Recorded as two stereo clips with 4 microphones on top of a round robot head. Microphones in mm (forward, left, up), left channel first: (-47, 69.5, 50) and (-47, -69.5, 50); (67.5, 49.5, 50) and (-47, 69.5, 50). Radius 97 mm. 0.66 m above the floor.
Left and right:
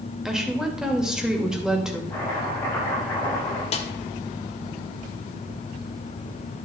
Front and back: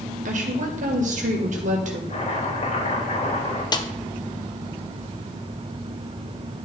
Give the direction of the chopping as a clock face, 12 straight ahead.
12 o'clock.